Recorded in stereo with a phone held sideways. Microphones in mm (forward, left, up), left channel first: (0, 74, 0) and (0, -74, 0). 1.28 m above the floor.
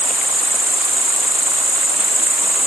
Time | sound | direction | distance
0.0 | an insect | 5° right (ahead or behind) | ?